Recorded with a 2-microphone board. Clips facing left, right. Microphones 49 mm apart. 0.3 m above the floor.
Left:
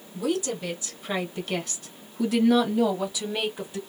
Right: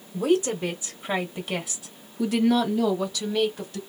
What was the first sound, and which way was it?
A woman speaking, 35° right (ahead or behind).